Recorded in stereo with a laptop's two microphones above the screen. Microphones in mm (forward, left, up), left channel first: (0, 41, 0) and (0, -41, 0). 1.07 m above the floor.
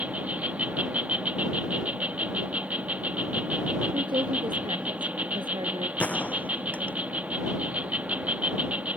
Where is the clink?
No clink in this recording.